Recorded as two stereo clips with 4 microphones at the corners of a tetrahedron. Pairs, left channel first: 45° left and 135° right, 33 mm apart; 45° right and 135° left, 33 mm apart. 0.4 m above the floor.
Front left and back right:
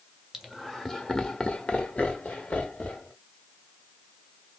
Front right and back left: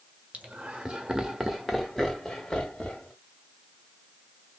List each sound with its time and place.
0.3 s laughter: 135° left, 1.3 m; by 3.1 s 25° left, 2.0 m